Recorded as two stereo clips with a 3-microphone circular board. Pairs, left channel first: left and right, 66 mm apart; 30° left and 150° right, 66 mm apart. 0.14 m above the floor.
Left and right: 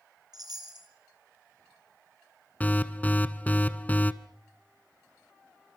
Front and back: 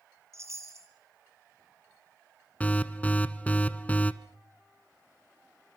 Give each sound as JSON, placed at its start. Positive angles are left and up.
{"t": 0.3, "sound": "a chime", "azimuth_deg": -105, "distance_m": 3.5}
{"t": 2.6, "sound": "an alarm", "azimuth_deg": 65, "distance_m": 1.1}